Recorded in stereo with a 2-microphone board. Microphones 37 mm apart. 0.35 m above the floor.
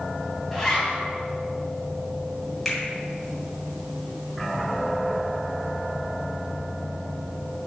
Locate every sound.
0.5 s a zipper: 10° left (ahead or behind), 2 m
2.6 s a finger snap: 10° left (ahead or behind), 2.5 m